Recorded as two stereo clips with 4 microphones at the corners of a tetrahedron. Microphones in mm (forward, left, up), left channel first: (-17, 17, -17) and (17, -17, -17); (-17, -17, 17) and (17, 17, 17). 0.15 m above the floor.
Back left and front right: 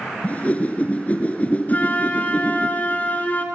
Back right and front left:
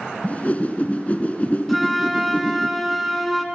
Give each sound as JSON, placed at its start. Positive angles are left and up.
{"t": 0.2, "sound": "a whoosh", "azimuth_deg": 180, "distance_m": 1.5}
{"t": 1.7, "sound": "a flute", "azimuth_deg": 135, "distance_m": 1.8}